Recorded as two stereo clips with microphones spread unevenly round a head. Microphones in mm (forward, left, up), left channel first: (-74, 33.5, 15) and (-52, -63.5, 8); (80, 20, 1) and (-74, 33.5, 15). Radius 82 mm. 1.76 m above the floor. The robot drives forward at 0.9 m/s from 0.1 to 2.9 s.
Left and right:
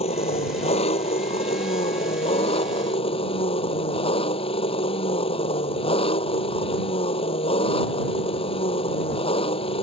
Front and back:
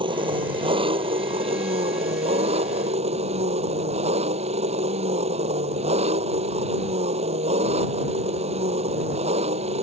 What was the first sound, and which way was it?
An engine running, 115° left.